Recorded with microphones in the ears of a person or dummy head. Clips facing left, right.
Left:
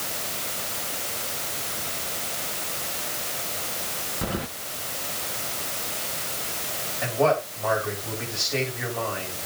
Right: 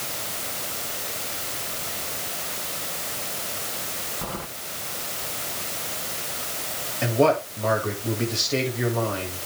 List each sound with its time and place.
4.2 s keys jangling: 20° left (ahead or behind), 1.0 m
7.0 s a man speaking: 45° right (ahead or behind), 8 m